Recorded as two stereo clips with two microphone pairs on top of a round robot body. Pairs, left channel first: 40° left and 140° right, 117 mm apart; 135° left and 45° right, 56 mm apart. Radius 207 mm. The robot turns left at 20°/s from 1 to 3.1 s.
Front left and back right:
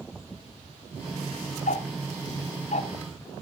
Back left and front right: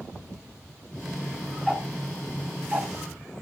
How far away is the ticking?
About 1.2 m.